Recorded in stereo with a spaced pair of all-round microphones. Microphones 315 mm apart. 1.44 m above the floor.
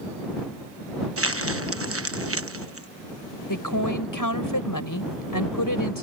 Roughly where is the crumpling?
Right.